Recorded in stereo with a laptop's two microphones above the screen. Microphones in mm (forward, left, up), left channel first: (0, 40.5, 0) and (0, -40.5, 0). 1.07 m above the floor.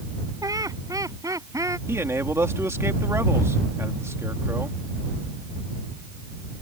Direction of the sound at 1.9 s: 35° right (ahead or behind).